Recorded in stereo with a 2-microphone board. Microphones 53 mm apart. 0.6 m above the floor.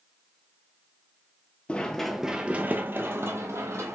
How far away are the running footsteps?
About 0.6 m.